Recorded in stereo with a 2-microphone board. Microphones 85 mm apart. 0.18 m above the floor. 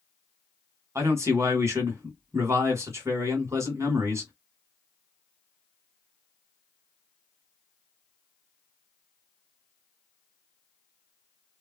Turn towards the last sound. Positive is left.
turn(degrees=-35)  # may be behind; listen again after turning